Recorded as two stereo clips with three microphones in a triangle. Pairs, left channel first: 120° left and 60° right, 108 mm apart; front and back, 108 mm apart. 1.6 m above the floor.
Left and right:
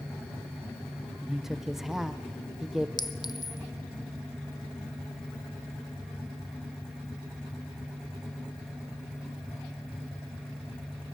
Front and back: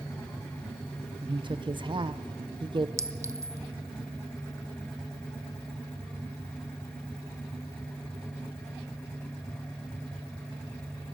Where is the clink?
135° left, 0.8 m.